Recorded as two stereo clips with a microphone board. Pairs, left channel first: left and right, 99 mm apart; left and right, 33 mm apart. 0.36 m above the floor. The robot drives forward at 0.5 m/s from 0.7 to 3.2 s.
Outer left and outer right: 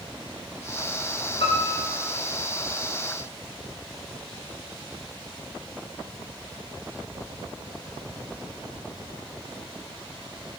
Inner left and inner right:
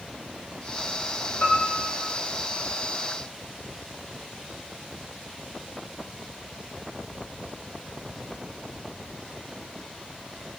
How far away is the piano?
About 8 m.